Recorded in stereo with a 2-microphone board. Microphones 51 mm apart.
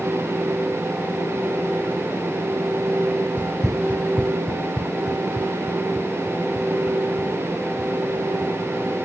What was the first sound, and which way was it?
Running footsteps, 35° right (ahead or behind).